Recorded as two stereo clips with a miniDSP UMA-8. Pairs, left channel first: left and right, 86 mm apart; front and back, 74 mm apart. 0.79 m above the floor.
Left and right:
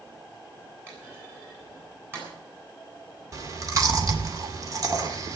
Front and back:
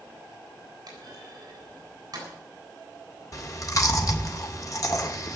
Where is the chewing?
40° right, 1.9 m.